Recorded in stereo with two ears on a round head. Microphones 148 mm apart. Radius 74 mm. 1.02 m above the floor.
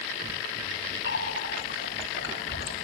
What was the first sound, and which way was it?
A running tap, 75° left (ahead or behind).